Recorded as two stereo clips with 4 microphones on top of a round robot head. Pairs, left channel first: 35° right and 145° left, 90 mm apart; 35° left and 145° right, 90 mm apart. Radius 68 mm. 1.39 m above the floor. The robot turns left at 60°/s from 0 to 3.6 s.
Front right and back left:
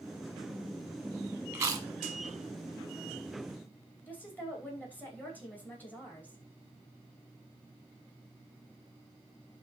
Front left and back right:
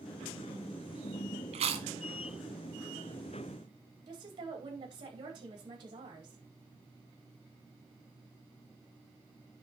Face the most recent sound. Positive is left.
turn(degrees=-105)